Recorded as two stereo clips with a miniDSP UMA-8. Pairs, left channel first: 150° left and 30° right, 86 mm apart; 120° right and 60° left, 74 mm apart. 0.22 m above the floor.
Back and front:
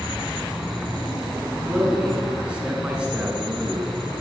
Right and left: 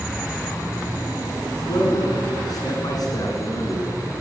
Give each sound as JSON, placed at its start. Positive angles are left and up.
{"t": 1.7, "sound": "a man speaking", "azimuth_deg": -105, "distance_m": 3.0}